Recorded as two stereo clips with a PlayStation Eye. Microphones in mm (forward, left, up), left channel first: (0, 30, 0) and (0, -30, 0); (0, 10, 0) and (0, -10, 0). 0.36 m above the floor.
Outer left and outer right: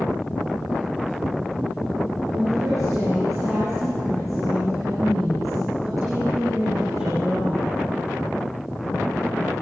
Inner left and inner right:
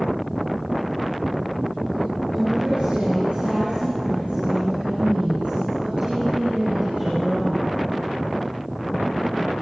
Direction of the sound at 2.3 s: 55° right (ahead or behind).